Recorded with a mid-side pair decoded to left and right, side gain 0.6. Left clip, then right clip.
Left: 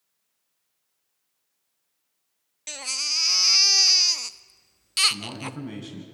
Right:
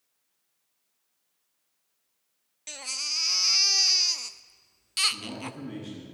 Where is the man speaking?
60° left, 10 m.